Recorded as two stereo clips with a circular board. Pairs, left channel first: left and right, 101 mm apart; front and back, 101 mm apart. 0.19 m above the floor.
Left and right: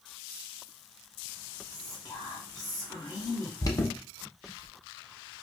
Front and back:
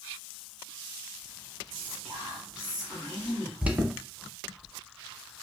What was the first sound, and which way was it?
Whispering, 100° left.